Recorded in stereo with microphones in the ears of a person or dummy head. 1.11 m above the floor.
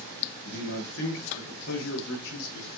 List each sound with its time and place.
0.5 s a man speaking: 85° left, 6.5 m; by 2.7 s 75° left (ahead or behind), 6.5 m